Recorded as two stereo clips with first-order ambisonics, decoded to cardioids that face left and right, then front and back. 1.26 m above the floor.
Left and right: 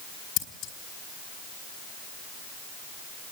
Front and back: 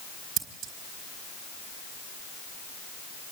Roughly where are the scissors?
Behind left.